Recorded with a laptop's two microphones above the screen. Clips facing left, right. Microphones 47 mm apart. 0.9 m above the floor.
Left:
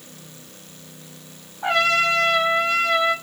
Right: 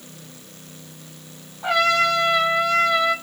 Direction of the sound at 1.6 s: 45° left (ahead or behind).